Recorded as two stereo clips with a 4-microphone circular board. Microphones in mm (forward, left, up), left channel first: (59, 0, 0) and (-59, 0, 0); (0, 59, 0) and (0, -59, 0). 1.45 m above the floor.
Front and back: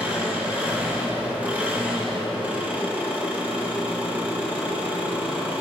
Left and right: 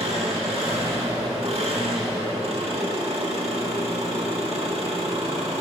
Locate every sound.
0.0 s an engine running: 105° right, 1.6 m